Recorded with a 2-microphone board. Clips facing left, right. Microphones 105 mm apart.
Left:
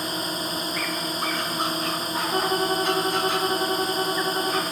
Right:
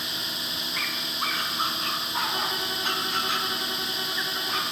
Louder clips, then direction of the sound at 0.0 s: Left 8 dB; 40° left (ahead or behind).